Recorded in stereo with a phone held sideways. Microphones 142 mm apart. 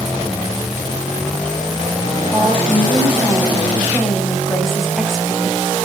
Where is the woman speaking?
5° left (ahead or behind), 7 m.